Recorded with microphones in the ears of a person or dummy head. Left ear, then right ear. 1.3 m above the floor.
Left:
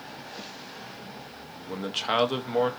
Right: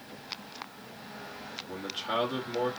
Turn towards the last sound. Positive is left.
turn(degrees=55)  # may be behind; listen again after turning